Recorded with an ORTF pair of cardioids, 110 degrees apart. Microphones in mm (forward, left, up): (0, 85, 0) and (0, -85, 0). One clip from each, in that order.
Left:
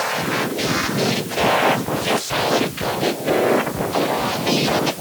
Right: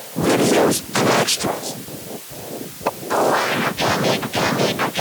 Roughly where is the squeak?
No squeak in this recording.